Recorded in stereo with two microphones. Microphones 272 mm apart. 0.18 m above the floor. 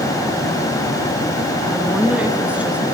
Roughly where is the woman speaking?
Centre.